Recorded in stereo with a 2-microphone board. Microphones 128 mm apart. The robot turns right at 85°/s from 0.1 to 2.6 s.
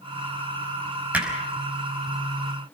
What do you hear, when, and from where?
1.1 s hammering: 10° right (ahead or behind), 5 m; by 1.3 s 25° right (ahead or behind), 5 m